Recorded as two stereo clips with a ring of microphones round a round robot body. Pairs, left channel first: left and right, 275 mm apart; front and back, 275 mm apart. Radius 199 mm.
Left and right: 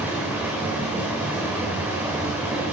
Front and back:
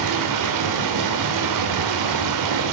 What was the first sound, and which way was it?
Running water, 175° right.